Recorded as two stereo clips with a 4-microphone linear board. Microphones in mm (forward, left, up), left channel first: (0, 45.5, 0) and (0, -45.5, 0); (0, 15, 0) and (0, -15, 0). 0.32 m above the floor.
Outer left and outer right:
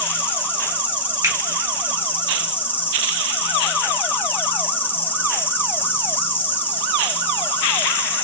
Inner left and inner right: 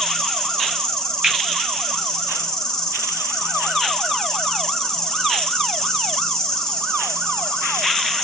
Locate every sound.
0.0 s an insect: 25° left (ahead or behind), 0.7 m
1.2 s a finger snap: 35° right (ahead or behind), 0.9 m